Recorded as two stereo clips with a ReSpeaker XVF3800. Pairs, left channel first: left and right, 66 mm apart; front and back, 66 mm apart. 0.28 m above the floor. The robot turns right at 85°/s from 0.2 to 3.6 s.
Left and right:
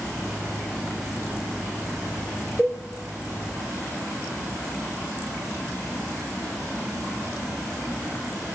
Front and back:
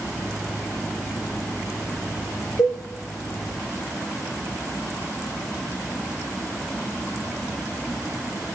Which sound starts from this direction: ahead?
A cowbell, at 2.6 s.